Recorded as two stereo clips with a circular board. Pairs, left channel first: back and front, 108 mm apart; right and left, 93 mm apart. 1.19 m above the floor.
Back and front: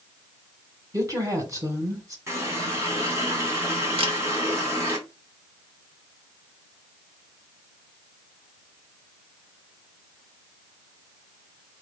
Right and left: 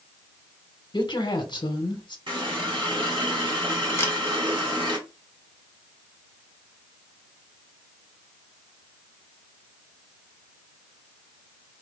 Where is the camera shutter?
25° right, 0.9 m.